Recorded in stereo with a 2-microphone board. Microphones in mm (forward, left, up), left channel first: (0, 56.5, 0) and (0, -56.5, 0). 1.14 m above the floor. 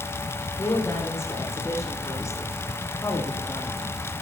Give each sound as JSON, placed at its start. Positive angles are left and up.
{"t": 0.6, "sound": "a woman speaking", "side_deg": 25, "distance_m": 4.0}